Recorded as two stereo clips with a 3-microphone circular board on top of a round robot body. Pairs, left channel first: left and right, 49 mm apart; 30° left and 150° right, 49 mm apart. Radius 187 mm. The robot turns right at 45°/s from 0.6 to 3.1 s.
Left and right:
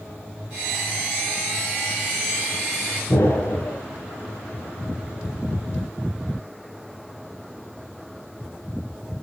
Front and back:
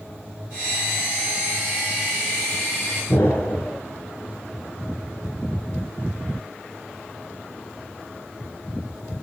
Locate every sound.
3.1 s an explosion: 65° left, 6 m